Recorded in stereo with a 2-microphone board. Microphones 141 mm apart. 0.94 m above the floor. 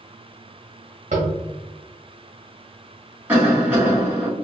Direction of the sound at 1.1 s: 60° right (ahead or behind).